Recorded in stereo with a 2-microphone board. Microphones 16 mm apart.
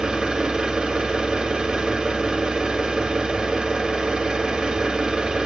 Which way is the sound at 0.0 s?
70° right (ahead or behind).